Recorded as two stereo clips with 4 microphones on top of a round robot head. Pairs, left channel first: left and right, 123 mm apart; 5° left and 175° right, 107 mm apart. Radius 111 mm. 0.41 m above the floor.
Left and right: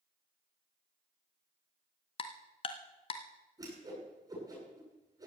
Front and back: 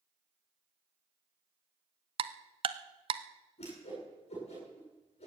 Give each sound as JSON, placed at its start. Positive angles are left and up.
{"t": 2.2, "sound": "ticking", "azimuth_deg": 145, "distance_m": 0.8}
{"t": 3.6, "sound": "a whoosh", "azimuth_deg": -30, "distance_m": 10.0}